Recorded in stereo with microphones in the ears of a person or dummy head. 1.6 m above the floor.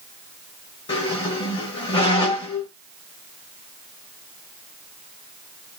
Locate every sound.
0.9 s a squeak: 30° left (ahead or behind), 1.3 m